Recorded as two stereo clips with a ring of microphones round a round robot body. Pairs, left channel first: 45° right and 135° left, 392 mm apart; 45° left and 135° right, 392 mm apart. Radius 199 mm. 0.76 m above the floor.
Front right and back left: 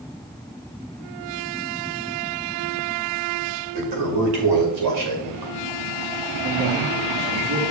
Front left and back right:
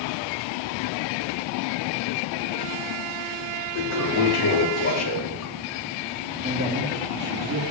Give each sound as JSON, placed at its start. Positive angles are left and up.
{"t": 3.8, "sound": "a toilet flushing", "azimuth_deg": 95, "distance_m": 2.0}
{"t": 6.4, "sound": "a man speaking", "azimuth_deg": 165, "distance_m": 1.7}